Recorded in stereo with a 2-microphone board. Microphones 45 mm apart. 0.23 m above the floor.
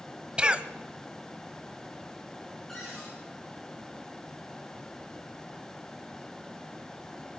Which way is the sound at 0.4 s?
20° right (ahead or behind).